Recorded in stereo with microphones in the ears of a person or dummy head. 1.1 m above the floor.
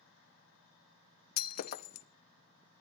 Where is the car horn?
No car horn in this recording.